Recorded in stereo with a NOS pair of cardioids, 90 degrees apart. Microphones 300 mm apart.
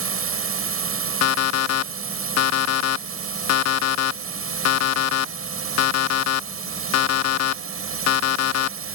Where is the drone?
50° right.